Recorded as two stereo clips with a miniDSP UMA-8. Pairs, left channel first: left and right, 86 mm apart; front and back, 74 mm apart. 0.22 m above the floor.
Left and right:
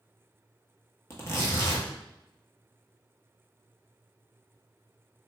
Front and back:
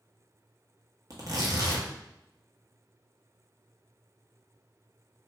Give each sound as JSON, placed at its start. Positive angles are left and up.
{"t": 1.1, "sound": "tearing paper", "azimuth_deg": 150, "distance_m": 0.7}